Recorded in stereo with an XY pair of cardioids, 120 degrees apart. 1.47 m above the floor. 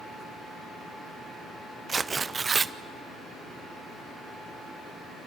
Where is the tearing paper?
25° right, 0.7 m.